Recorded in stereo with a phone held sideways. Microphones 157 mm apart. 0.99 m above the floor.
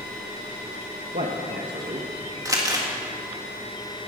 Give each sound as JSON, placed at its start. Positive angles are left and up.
{"t": 1.1, "sound": "a man speaking", "side_deg": -65, "distance_m": 0.9}
{"t": 2.5, "sound": "crumpling", "side_deg": -20, "distance_m": 1.7}